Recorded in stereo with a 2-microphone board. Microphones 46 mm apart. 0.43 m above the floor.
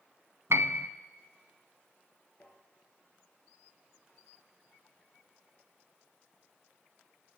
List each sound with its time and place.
0.5 s a piano: 80° right, 0.8 m
2.4 s tapping: 35° left (ahead or behind), 5 m